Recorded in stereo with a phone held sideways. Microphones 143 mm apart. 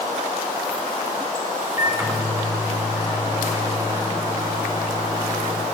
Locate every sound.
1.8 s a microwave: 25° right (ahead or behind), 2.5 m